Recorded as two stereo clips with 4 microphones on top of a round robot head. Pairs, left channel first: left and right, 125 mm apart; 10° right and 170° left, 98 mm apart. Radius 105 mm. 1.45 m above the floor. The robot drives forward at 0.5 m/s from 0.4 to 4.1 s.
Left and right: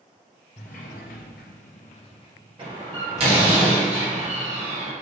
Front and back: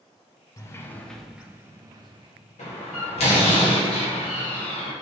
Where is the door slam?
35° right, 2 m; by 4.9 s 50° right, 1.6 m.